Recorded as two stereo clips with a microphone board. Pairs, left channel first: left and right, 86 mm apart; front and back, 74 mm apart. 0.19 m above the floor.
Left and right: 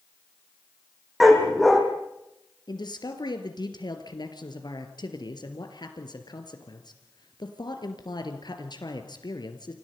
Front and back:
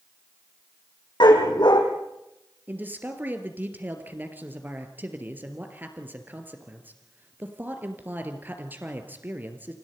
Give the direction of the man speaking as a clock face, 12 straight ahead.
8 o'clock.